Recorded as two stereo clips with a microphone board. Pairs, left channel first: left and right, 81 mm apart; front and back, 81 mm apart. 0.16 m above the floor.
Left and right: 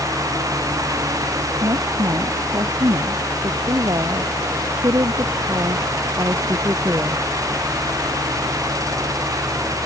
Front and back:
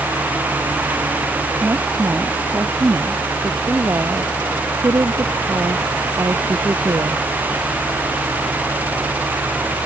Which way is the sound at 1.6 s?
125° right.